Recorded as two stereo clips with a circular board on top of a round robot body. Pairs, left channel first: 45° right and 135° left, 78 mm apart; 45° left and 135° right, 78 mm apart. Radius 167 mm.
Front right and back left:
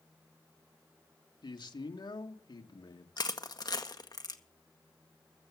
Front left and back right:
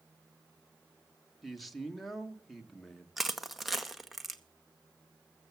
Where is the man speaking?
45° right, 2 m.